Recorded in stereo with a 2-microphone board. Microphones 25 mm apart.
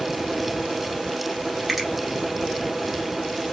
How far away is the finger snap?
About 2.5 m.